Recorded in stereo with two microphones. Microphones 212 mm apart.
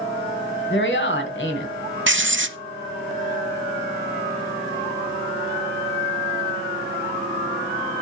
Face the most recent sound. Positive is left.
turn(degrees=-60)  # may be behind; listen again after turning